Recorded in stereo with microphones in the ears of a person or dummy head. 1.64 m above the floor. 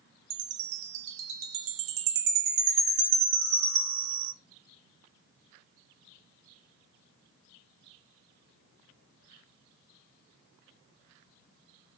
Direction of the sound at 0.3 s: 70° right (ahead or behind).